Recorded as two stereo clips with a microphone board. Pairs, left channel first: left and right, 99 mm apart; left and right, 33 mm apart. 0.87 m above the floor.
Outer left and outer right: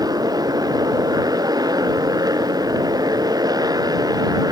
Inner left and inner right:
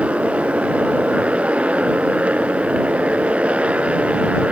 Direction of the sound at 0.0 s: 40° right (ahead or behind).